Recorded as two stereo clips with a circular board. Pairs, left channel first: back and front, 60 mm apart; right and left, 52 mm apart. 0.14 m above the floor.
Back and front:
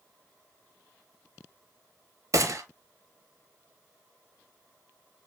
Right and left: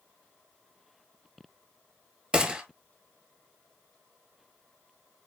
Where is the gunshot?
25° left, 0.7 m.